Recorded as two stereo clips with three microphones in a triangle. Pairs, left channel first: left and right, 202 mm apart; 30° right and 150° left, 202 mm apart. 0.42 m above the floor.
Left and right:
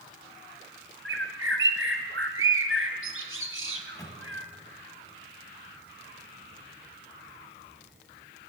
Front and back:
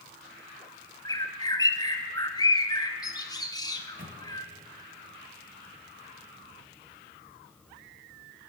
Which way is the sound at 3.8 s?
160° left.